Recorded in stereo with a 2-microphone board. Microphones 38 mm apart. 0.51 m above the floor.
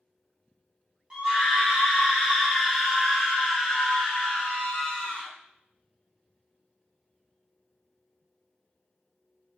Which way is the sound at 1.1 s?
20° right (ahead or behind).